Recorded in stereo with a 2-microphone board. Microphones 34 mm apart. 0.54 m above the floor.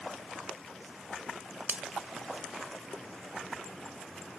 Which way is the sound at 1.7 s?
45° right (ahead or behind).